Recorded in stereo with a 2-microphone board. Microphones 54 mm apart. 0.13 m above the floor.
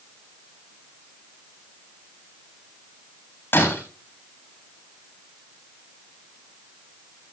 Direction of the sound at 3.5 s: 45° left (ahead or behind).